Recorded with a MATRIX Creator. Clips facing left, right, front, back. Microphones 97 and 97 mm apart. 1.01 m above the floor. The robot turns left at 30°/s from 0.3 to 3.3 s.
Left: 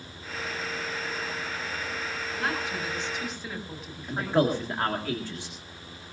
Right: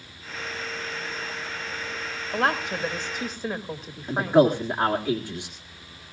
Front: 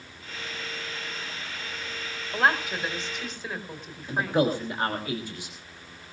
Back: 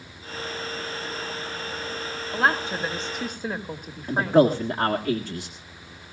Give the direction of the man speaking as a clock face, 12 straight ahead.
5 o'clock.